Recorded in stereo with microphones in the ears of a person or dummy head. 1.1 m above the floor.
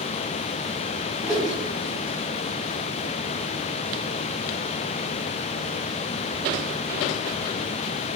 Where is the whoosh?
20° left (ahead or behind), 0.6 m.